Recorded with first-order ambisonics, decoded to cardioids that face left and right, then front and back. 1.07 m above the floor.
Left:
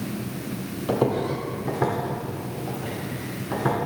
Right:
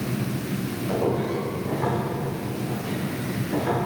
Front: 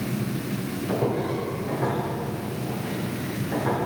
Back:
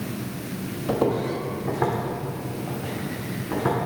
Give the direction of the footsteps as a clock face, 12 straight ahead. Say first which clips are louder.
Left 2 dB, back 3 dB; 8 o'clock.